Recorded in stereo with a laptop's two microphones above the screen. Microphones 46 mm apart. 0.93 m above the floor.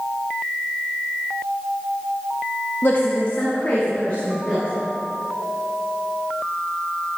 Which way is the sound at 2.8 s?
50° left (ahead or behind).